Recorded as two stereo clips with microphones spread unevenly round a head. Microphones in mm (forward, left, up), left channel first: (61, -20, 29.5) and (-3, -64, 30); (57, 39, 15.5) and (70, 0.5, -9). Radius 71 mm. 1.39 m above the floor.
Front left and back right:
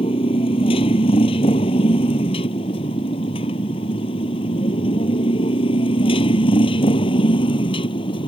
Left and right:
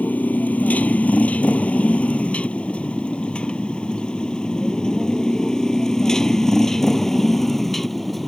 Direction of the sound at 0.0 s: 65° left.